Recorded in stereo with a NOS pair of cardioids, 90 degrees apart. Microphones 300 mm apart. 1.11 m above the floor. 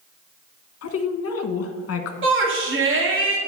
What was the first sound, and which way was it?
A woman speaking, 50° left.